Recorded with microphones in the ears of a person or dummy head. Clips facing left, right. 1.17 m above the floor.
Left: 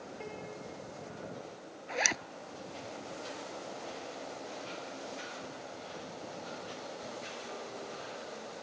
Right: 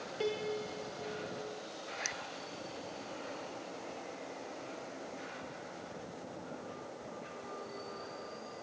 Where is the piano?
50° right (ahead or behind).